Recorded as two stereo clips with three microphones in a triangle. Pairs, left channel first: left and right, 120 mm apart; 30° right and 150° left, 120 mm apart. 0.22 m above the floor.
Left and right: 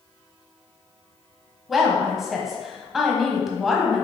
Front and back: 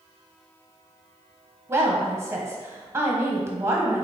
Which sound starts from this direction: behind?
A woman speaking, at 1.7 s.